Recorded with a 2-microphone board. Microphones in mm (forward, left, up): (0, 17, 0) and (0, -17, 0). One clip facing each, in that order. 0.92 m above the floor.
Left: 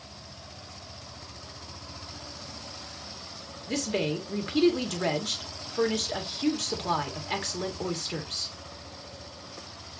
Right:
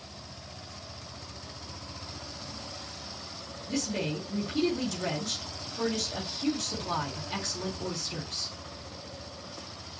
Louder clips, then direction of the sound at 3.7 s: Left 3 dB; 75° left (ahead or behind).